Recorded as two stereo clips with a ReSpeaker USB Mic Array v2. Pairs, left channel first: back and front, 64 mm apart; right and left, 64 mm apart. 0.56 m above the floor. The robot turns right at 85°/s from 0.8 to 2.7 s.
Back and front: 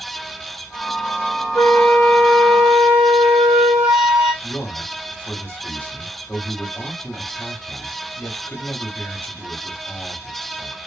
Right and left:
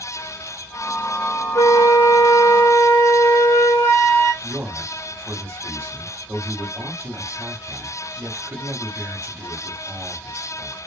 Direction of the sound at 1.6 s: 155° right.